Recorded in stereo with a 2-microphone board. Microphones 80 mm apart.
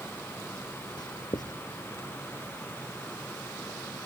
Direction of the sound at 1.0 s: 60° left (ahead or behind).